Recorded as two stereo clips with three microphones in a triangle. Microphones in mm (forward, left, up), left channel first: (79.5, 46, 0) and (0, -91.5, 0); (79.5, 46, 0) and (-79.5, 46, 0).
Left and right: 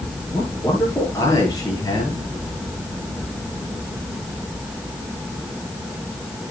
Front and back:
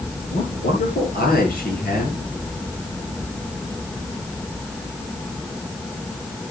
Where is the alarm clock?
I don't hear an alarm clock.